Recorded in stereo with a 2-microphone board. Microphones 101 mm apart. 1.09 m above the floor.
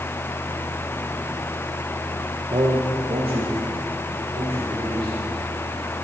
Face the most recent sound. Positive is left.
turn(degrees=-65)  # may be behind; listen again after turning